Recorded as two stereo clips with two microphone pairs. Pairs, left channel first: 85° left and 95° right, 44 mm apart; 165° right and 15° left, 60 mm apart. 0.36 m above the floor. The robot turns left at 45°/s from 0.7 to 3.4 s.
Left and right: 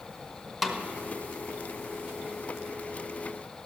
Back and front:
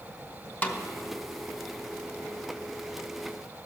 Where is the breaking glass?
No breaking glass in this recording.